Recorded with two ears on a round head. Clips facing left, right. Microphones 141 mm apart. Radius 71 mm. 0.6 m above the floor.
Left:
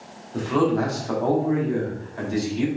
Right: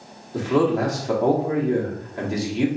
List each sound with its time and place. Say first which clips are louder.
0.3 s a man speaking: right 1 dB; 20° right (ahead or behind), 1.1 m